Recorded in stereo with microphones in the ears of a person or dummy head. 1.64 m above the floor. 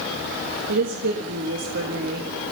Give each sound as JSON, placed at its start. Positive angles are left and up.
{"t": 0.7, "sound": "a woman speaking", "side_deg": -60, "distance_m": 2.0}